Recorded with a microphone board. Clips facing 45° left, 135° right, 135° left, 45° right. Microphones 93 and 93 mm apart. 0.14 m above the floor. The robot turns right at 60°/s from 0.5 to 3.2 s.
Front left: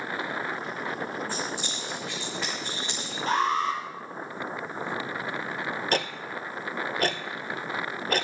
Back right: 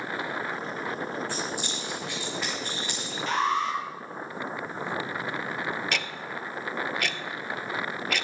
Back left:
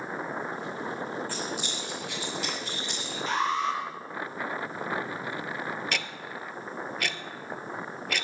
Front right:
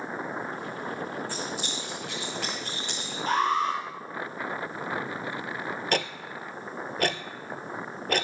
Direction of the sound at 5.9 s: Straight ahead.